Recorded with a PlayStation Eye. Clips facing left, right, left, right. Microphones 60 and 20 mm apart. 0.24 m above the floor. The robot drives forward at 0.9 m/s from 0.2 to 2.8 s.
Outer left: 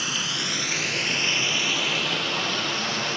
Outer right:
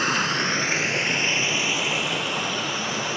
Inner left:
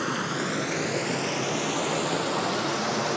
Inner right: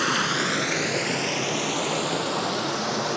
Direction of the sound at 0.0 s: 50° right (ahead or behind).